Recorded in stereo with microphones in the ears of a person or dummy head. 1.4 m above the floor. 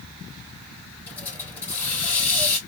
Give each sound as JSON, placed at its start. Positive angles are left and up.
{"t": 1.1, "sound": "a hiss", "side_deg": 15, "distance_m": 2.5}